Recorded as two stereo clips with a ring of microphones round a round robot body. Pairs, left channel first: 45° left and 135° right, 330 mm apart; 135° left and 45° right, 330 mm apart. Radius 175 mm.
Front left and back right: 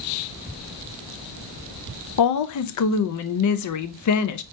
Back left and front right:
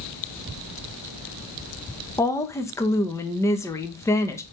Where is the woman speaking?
55° left, 0.7 m.